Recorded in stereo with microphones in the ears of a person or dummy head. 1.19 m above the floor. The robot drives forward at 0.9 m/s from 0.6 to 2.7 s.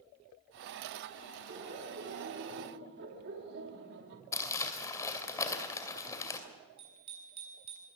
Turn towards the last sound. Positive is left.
turn(degrees=-30)  # may be behind; listen again after turning